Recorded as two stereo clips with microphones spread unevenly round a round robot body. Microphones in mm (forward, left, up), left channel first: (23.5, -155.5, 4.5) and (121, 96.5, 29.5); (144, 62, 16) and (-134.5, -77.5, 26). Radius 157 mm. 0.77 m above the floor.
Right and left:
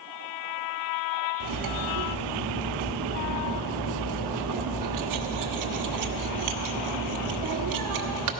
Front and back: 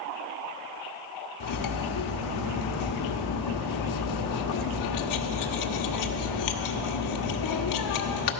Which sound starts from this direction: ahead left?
Cutlery clinking, at 1.4 s.